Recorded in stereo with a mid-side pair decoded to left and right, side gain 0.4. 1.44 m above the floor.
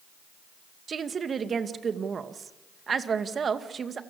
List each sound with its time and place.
0.9 s a woman speaking: 50° right, 2 m